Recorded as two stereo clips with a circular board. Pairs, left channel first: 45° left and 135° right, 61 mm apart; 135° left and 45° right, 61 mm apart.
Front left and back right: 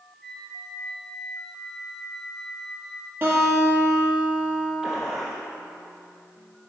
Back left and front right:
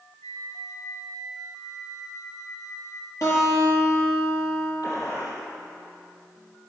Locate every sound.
0.2 s a flute: 130° left, 1.9 m
3.2 s a guitar: 165° left, 5 m
4.8 s a gunshot: 140° left, 4 m